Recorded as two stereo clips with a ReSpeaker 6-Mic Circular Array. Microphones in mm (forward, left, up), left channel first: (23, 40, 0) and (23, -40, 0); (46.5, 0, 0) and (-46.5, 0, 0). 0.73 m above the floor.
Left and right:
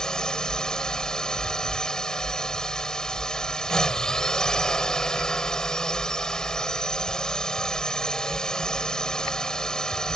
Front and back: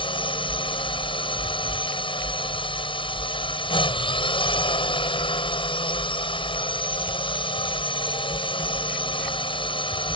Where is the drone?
10° left.